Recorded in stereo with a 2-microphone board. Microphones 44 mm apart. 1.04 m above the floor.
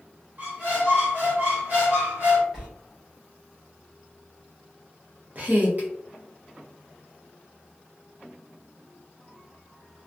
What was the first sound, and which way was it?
A squeak, 50° right (ahead or behind).